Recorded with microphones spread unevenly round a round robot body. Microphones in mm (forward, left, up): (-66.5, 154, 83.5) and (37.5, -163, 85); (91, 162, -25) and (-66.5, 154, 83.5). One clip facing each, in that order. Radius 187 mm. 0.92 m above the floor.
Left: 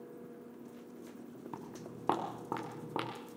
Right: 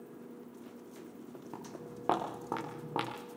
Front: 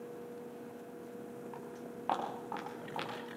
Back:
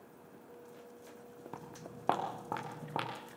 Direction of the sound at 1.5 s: 175° right.